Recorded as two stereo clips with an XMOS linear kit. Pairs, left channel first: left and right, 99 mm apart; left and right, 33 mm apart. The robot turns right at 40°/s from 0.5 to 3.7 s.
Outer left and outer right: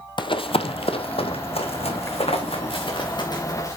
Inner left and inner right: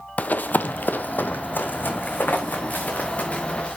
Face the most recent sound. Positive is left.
turn(degrees=30)  # may be behind; listen again after turning